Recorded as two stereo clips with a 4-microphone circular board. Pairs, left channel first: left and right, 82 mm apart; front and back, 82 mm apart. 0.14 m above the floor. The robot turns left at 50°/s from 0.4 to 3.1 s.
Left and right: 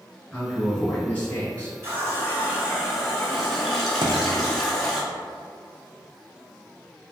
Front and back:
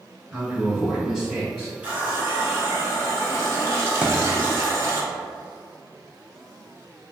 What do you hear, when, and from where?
0.3 s a man speaking: 145° left, 1.1 m; by 1.7 s 80° left, 1.1 m
1.8 s a running tap: 115° right, 1.0 m; by 5.0 s straight behind, 1.0 m
4.0 s a thud: 105° right, 0.5 m